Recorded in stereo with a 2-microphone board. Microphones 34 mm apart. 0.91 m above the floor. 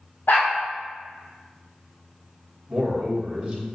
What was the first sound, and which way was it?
A dog barking, 75° left (ahead or behind).